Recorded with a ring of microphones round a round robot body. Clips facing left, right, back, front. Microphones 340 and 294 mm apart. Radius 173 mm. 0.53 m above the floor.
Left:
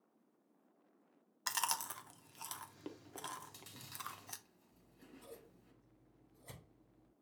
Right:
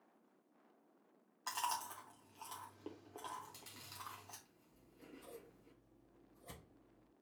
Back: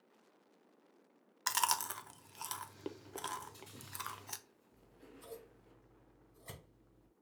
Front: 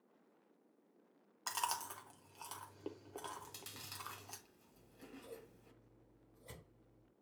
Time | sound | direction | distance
1.5 | chewing | 125° left | 0.6 m
3.4 | chewing | 10° left | 1.0 m
4.7 | scissors | 160° left | 2.5 m